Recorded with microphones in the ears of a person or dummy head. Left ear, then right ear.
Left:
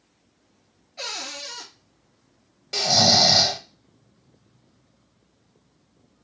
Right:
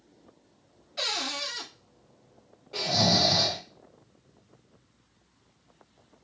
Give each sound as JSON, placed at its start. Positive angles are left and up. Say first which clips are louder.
{"t": 1.0, "sound": "a cupboard door", "louder": "right 2 dB", "side_deg": -40, "distance_m": 2.5}
{"t": 2.7, "sound": "snoring", "louder": "left 7 dB", "side_deg": 70, "distance_m": 1.0}